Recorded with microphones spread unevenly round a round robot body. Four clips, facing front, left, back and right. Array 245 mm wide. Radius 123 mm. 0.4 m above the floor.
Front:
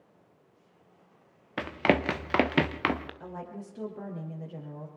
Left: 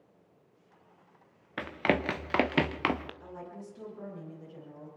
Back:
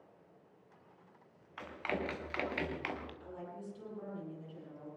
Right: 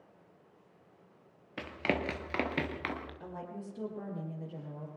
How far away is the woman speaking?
About 9 m.